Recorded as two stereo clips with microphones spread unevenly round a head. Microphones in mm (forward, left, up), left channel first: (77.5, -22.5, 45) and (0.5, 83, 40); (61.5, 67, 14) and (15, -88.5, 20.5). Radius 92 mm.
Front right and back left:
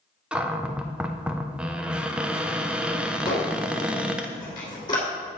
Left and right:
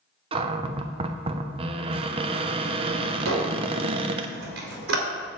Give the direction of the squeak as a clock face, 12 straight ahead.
4 o'clock.